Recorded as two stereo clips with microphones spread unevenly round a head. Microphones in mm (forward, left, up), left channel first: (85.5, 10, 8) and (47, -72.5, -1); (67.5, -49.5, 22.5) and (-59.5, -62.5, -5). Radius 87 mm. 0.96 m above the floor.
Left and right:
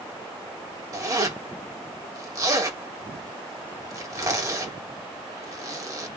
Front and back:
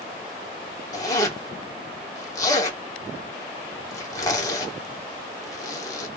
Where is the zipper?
60° right, 2 m.